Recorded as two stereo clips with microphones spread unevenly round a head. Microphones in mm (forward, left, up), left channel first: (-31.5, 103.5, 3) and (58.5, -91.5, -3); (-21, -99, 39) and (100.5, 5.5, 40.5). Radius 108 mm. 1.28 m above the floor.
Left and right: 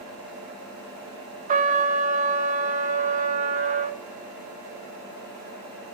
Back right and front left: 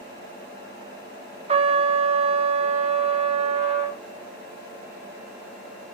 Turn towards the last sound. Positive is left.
turn(degrees=-10)